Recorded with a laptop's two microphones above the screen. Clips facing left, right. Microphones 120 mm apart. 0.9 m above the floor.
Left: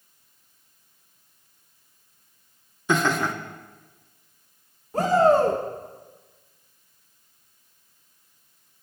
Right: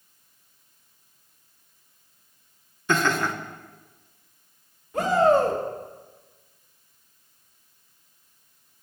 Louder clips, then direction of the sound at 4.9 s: Left 1 dB; 40° left (ahead or behind).